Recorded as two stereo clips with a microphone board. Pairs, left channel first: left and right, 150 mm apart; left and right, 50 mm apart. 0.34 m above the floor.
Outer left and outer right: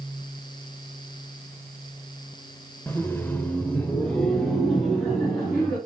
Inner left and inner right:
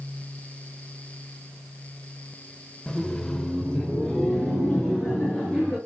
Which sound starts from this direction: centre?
Laughter, at 2.9 s.